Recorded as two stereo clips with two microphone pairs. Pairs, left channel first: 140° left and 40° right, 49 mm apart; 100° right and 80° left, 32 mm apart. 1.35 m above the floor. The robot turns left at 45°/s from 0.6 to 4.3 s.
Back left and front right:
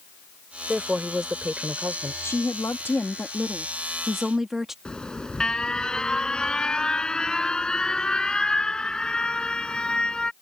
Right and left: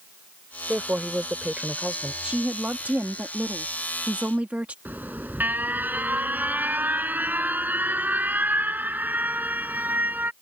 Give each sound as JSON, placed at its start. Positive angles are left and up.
{"t": 0.7, "sound": "a woman speaking", "azimuth_deg": 60}
{"t": 2.2, "sound": "a woman speaking", "azimuth_deg": 135}
{"t": 4.8, "sound": "an alarm", "azimuth_deg": 70}